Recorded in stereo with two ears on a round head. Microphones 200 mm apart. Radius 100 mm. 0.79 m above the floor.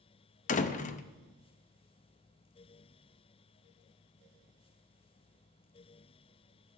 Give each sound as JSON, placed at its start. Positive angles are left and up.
{"t": 0.5, "sound": "a door slam", "side_deg": 35, "distance_m": 0.7}